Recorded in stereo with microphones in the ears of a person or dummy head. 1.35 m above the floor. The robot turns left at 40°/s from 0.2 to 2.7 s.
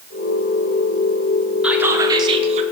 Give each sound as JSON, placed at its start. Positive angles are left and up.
{"t": 1.6, "sound": "whispering", "azimuth_deg": -5, "distance_m": 1.0}